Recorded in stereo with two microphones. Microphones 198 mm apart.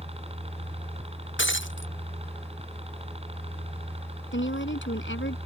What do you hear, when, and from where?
0.0 s a helicopter: 30° right (ahead or behind)
1.4 s breaking glass: 65° left (ahead or behind)
4.3 s a woman speaking: 65° left (ahead or behind)